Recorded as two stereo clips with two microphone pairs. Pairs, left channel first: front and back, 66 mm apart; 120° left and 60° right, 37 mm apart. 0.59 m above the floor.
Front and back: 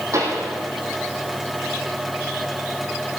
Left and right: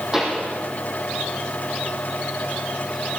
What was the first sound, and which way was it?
A pop, 135° right.